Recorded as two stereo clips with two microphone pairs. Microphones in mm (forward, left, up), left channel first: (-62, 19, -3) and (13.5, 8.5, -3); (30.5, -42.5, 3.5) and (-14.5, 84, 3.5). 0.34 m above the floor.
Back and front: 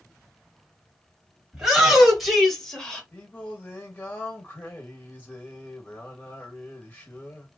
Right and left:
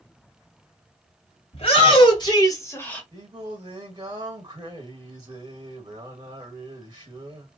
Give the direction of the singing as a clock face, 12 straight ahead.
8 o'clock.